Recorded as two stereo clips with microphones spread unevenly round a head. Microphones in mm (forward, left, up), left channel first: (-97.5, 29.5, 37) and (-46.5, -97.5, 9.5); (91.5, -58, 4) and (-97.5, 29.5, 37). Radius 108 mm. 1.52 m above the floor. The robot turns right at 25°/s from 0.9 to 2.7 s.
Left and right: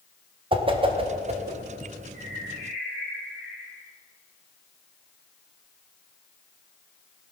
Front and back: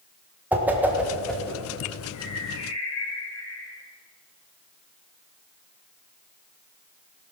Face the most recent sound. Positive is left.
turn(degrees=10)